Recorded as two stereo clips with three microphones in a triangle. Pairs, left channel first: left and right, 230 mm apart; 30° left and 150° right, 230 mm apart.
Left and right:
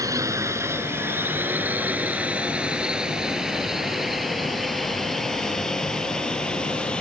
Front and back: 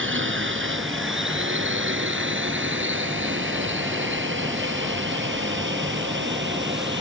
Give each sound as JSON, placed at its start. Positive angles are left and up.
{"t": 0.0, "sound": "a drone", "azimuth_deg": -165}